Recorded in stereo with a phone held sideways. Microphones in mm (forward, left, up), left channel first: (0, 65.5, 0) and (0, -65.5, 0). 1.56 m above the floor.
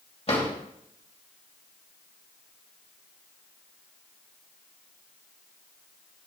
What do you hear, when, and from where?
0.3 s a drawer: 45° left (ahead or behind), 2.5 m